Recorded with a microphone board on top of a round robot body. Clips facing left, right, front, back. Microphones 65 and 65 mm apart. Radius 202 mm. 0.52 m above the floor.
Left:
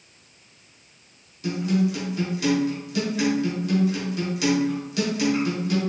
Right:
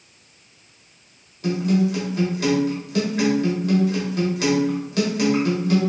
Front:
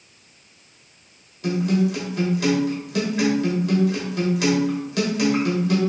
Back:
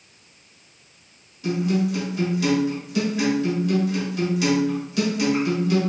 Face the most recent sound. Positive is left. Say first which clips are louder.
# right 3 dB, front 2 dB
turn(degrees=-40)